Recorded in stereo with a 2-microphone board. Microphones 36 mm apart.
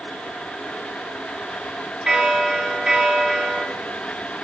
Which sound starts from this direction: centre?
A bell, at 2.1 s.